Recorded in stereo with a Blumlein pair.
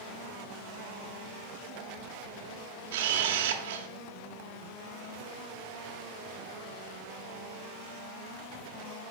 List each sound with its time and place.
2.9 s a camera shutter: 55° right, 0.9 m